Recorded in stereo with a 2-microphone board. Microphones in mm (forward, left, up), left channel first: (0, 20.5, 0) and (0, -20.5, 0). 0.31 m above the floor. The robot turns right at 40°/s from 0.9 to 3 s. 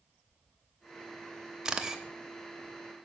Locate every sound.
1.6 s a camera shutter: 15° right (ahead or behind), 0.6 m; by 2.0 s 10° right (ahead or behind), 0.6 m